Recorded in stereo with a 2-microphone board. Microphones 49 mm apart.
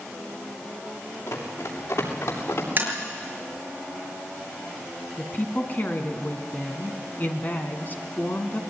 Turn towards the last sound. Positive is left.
turn(degrees=40)  # may be behind; listen again after turning